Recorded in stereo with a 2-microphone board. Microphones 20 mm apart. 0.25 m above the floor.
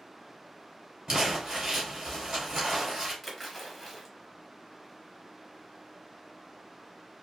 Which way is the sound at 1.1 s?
30° right (ahead or behind).